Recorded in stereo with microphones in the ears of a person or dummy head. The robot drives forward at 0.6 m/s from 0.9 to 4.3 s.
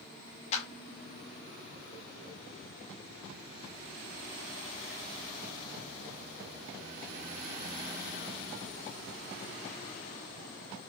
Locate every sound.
0.5 s a clap: 40° left (ahead or behind), 1.3 m